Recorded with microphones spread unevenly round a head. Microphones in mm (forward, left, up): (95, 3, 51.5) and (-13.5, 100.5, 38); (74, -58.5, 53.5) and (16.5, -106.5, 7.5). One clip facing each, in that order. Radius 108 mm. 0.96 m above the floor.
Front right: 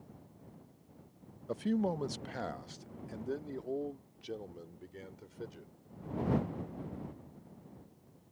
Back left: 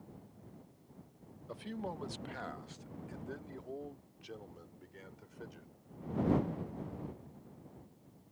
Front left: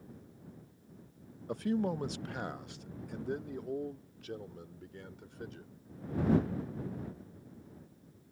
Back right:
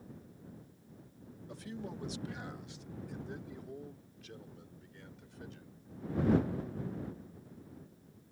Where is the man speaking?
5° right; by 5.7 s 15° left.